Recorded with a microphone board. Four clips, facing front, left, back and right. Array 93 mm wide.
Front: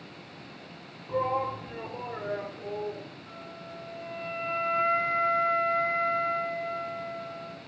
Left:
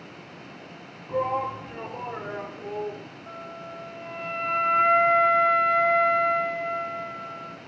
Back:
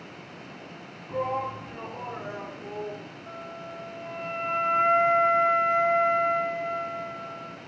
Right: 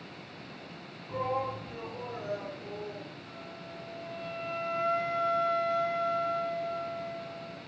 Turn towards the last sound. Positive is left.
turn(degrees=110)